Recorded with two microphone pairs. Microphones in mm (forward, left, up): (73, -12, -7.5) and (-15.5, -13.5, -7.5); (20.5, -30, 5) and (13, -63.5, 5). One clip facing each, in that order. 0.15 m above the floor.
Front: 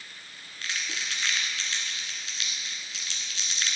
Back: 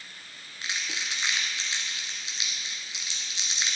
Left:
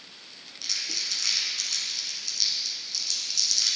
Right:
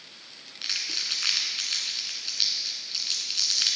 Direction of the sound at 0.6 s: 115° right.